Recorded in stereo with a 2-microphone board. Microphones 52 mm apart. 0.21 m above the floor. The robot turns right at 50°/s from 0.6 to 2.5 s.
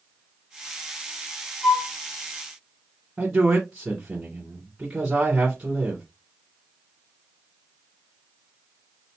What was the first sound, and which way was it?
A flute, 5° left (ahead or behind).